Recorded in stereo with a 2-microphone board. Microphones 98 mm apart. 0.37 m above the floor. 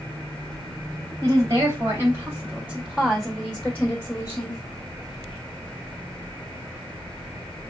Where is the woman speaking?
35° right (ahead or behind), 2.5 m; by 4.6 s 40° left (ahead or behind), 1.6 m.